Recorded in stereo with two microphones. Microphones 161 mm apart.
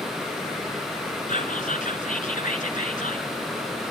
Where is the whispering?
55° left (ahead or behind), 3.5 m.